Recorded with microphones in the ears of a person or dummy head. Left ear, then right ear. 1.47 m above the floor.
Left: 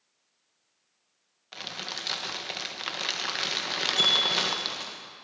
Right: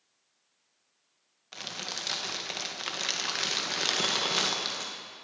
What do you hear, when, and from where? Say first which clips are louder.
1.5 s crumpling: left 1 dB; 10° left (ahead or behind), 1.6 m
4.0 s a bell: left 8 dB; 35° left (ahead or behind), 6 m